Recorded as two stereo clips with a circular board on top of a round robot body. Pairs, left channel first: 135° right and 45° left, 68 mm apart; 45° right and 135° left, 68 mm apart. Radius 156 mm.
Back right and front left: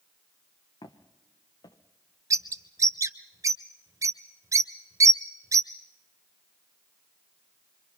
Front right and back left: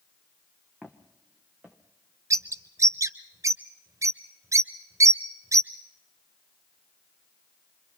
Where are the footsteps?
150° right, 1.9 m.